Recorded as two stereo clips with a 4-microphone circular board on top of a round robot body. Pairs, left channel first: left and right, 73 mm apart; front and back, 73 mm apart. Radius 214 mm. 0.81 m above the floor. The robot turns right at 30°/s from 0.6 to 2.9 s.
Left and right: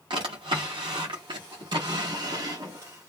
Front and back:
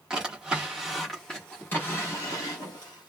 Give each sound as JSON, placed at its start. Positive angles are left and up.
{"t": 0.1, "sound": "a drawer", "azimuth_deg": -100, "distance_m": 0.6}